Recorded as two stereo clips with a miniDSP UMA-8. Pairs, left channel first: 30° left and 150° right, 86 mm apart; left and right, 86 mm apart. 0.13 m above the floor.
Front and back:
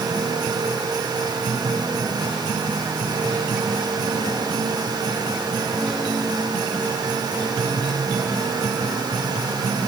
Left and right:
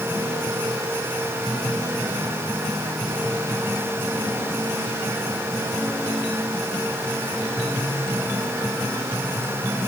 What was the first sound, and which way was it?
Only background noise.